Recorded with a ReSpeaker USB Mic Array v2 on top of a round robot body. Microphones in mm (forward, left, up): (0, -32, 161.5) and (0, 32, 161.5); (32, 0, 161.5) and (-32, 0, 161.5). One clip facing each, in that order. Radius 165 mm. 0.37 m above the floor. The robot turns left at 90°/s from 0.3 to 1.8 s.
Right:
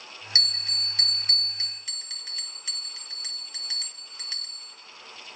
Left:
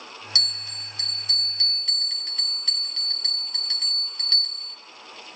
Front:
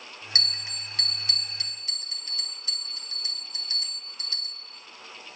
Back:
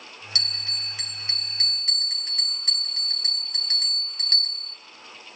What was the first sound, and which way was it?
A bell, 40° right.